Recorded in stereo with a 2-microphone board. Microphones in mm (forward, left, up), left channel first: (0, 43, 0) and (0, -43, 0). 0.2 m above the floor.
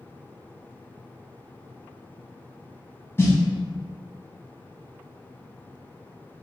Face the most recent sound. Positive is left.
turn(degrees=30)  # may be behind; listen again after turning